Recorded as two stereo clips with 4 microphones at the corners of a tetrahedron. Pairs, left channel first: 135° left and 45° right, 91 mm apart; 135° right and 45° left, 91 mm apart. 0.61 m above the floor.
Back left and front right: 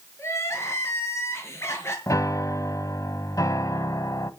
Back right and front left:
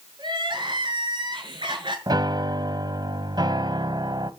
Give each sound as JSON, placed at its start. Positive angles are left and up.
{"t": 0.2, "sound": "crying", "azimuth_deg": 75, "distance_m": 5.5}
{"t": 2.1, "sound": "a piano", "azimuth_deg": 80, "distance_m": 1.2}